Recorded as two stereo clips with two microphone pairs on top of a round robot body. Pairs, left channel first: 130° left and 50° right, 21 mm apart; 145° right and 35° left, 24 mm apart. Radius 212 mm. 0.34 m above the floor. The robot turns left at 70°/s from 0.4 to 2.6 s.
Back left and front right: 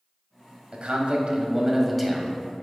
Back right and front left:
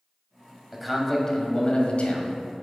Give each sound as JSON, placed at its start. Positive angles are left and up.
{"t": 0.7, "sound": "a man speaking", "azimuth_deg": -50, "distance_m": 1.4}